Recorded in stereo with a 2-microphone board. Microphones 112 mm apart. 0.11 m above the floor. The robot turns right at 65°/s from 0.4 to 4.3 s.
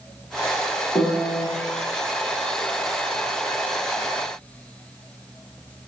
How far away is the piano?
About 1.0 m.